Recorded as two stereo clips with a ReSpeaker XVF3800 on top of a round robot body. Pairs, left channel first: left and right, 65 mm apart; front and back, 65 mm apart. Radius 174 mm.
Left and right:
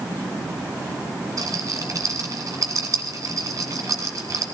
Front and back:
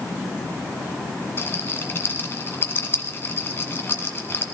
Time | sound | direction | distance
1.4 | a rattle | 55° right | 2.5 m